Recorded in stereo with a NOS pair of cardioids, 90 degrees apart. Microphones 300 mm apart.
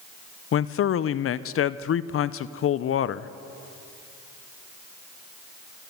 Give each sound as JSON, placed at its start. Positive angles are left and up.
{"t": 0.5, "sound": "a man speaking", "azimuth_deg": 45, "distance_m": 0.7}